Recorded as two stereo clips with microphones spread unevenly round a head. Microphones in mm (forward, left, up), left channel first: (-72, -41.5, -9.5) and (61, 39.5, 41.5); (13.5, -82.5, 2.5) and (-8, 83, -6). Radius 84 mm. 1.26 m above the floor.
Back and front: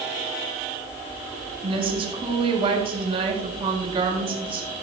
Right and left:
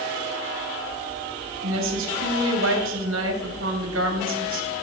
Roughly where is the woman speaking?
Left.